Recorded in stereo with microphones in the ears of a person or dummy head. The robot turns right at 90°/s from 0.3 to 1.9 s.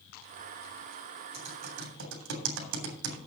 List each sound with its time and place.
1.3 s typing on a keyboard: 25° right (ahead or behind), 3 m; by 3.2 s 75° right (ahead or behind), 3 m